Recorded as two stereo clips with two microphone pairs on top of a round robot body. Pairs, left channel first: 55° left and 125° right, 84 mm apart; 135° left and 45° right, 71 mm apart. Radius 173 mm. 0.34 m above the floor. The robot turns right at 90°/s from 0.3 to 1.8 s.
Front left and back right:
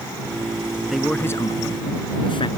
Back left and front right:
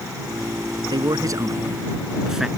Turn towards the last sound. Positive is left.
turn(degrees=40)